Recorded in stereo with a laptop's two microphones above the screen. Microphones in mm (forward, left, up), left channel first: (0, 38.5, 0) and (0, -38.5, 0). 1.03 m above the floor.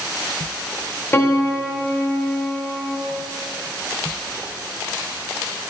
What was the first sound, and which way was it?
A piano, 25° left (ahead or behind).